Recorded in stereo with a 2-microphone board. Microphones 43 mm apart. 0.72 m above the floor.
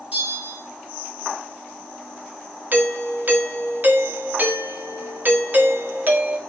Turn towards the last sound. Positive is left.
turn(degrees=-45)  # may be behind; listen again after turning